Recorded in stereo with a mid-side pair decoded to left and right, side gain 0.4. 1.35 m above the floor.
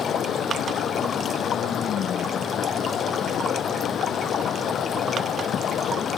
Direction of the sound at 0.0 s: 65° left.